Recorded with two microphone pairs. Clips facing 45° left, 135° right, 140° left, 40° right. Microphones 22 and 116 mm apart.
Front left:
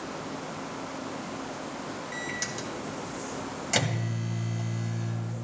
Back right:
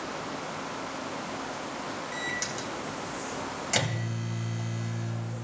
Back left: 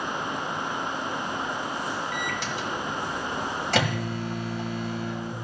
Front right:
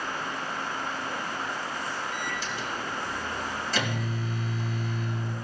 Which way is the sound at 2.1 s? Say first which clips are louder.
Back right 1 dB, back left 3 dB; 130° left.